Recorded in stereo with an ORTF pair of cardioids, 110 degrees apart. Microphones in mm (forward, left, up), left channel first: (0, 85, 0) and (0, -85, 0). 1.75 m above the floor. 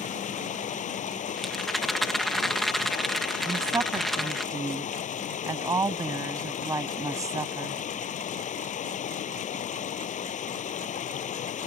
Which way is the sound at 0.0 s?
55° left.